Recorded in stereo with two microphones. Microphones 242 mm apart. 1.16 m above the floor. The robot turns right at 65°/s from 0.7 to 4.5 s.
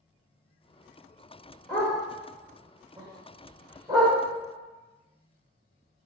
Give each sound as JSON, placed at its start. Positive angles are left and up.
{"t": 1.7, "sound": "a dog barking", "side_deg": 10, "distance_m": 0.9}